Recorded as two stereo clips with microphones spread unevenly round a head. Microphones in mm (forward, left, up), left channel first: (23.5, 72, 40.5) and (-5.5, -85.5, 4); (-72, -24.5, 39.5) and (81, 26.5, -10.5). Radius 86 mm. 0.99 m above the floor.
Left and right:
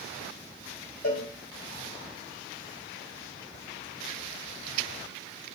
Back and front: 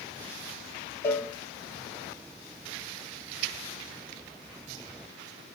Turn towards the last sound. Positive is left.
turn(degrees=120)